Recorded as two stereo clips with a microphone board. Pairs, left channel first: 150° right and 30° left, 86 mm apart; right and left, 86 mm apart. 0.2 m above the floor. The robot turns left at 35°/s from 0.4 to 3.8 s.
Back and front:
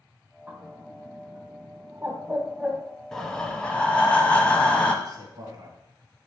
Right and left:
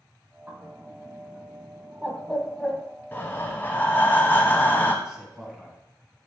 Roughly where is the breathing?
Right.